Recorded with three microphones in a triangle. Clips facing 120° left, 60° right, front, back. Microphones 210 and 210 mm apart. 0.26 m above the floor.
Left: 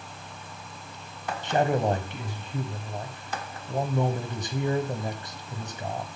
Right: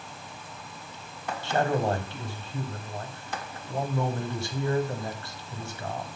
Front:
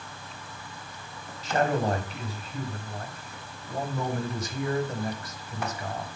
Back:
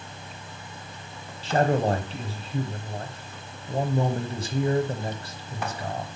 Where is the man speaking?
170° left, 1.2 m.